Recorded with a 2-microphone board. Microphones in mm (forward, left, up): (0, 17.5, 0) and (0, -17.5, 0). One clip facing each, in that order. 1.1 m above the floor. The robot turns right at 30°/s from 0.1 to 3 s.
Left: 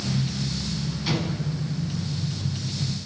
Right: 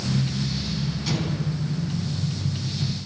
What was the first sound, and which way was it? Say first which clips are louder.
An explosion: left 2 dB; 20° left (ahead or behind).